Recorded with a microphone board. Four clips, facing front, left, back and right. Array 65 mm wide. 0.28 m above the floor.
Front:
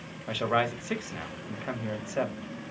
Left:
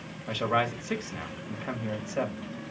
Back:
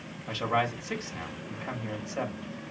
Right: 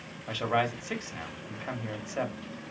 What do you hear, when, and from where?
0.3 s a man speaking: straight ahead, 1.1 m